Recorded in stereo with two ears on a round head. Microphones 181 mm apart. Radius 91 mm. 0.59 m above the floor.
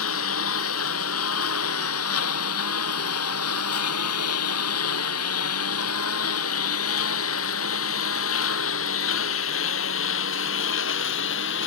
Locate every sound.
0.0 s a lawn mower: 80° left; by 11.7 s 65° left (ahead or behind)